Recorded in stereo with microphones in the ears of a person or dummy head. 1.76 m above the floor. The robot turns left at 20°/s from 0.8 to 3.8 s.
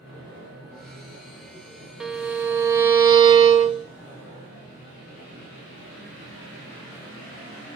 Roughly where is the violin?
Ahead.